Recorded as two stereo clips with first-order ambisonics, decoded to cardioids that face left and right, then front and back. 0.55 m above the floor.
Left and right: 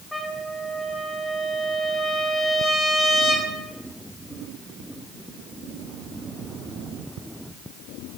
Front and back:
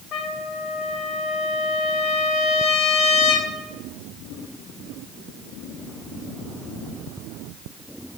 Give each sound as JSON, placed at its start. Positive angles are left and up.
{"t": 0.1, "sound": "a trumpet", "azimuth_deg": 5, "distance_m": 1.3}